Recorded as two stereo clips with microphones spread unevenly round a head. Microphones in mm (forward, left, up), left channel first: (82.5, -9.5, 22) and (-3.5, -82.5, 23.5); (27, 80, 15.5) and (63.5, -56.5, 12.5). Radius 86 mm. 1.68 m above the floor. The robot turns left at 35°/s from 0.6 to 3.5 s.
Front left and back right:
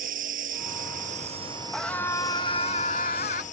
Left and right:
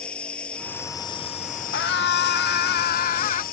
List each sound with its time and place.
0.0 s a lawn mower: 170° right; by 3.5 s 85° left
1.7 s a scream: 130° left; by 3.4 s 70° left